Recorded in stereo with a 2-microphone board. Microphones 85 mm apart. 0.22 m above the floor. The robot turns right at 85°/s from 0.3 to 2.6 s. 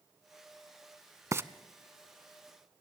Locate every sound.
1.3 s frying: 35° right (ahead or behind), 0.5 m; by 1.4 s 30° right (ahead or behind), 0.5 m